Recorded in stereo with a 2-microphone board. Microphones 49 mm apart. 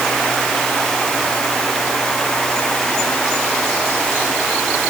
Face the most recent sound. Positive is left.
No sound to turn to.